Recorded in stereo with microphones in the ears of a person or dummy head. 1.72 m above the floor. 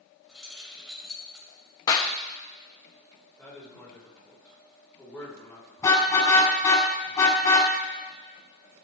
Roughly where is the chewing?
No chewing in this recording.